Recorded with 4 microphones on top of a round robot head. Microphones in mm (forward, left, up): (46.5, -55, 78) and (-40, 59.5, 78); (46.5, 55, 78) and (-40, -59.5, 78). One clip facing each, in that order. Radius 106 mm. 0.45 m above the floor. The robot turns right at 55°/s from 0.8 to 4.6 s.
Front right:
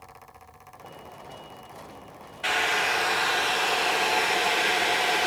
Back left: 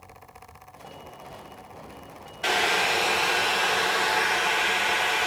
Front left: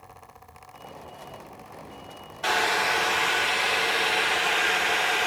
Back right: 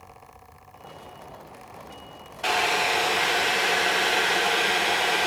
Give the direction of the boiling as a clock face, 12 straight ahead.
7 o'clock.